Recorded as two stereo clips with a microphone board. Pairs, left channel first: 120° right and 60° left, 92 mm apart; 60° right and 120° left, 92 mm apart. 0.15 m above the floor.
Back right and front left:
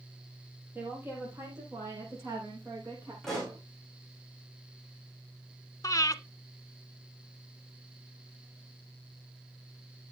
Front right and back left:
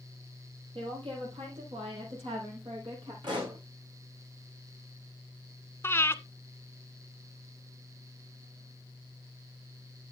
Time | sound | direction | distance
0.8 | a woman speaking | 125° left | 6 m
3.2 | a pop | 155° left | 6.5 m
5.8 | breathing | 105° right | 0.6 m